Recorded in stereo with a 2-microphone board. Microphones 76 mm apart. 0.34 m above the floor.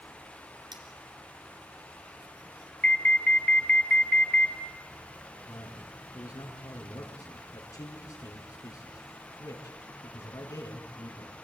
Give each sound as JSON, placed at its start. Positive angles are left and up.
{"t": 0.7, "sound": "cutlery clinking", "side_deg": -70, "distance_m": 2.5}
{"t": 2.8, "sound": "an alarm", "side_deg": 15, "distance_m": 0.9}
{"t": 5.5, "sound": "a man speaking", "side_deg": 45, "distance_m": 4.5}